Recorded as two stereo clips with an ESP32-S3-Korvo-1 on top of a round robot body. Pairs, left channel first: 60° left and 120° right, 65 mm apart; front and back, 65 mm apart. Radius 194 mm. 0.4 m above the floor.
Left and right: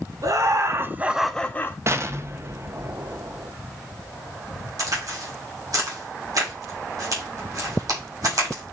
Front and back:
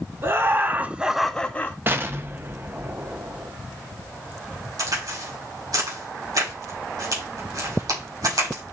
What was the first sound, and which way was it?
Laughter, 135° right.